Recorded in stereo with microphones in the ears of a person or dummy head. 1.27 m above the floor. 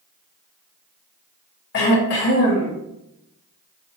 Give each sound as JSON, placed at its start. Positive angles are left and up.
{"t": 1.7, "sound": "throat clearing", "side_deg": 55, "distance_m": 1.1}